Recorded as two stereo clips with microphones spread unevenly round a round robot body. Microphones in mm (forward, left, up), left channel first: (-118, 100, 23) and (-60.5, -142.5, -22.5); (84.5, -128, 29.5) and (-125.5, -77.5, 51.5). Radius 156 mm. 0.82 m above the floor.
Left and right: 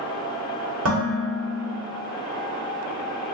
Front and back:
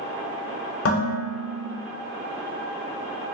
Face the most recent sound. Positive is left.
turn(degrees=-30)